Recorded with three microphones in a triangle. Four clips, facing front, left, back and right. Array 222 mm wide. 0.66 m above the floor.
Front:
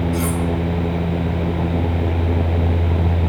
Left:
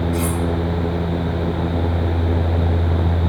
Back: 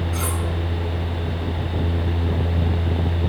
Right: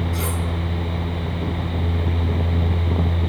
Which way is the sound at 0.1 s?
95° right.